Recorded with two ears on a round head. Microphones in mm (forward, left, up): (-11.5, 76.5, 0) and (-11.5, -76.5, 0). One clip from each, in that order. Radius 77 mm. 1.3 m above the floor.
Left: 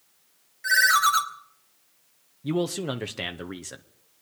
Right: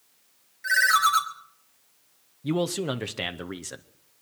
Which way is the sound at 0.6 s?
5° left (ahead or behind).